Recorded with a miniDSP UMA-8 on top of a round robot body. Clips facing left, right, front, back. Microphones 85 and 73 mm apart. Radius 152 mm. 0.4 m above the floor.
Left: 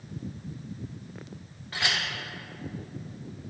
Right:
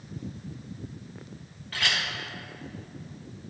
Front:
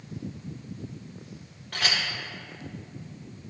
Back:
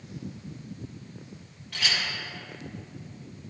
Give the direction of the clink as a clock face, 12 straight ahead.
11 o'clock.